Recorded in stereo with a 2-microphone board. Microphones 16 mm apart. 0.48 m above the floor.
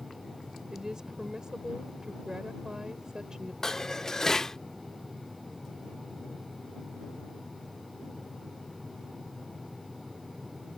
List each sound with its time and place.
0.7 s a woman speaking: 55° right (ahead or behind)
3.6 s dishes clattering: 35° left (ahead or behind)